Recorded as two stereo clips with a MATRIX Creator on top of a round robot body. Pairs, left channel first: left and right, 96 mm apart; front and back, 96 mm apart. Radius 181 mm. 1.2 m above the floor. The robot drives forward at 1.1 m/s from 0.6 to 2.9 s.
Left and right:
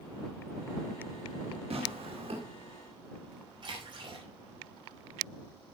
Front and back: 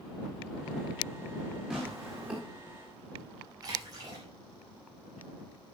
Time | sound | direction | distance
1.7 | tearing paper | 95° right | 5.5 m
3.6 | a splash | 130° right | 6.5 m